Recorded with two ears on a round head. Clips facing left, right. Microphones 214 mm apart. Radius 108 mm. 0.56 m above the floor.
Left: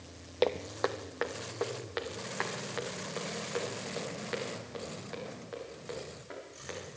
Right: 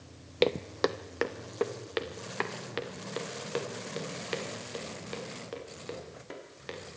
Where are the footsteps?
30° right (ahead or behind), 0.7 m; by 7.0 s 45° right (ahead or behind), 8 m.